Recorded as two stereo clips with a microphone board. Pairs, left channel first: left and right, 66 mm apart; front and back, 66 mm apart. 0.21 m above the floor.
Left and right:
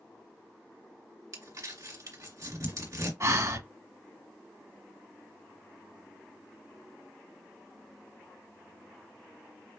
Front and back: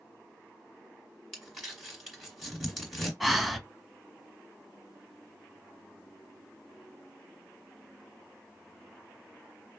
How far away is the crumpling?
About 2 m.